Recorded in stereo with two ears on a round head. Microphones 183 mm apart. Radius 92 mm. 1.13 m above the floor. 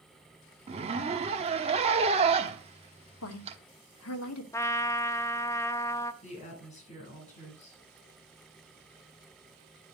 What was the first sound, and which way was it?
A zipper, 30° right (ahead or behind).